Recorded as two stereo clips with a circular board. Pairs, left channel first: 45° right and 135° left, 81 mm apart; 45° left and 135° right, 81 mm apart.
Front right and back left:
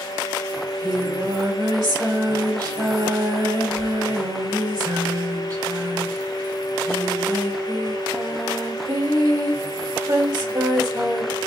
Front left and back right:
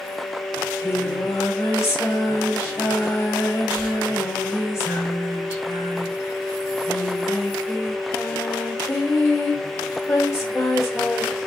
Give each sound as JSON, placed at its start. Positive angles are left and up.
{"t": 0.6, "sound": "singing", "azimuth_deg": 95, "distance_m": 2.5}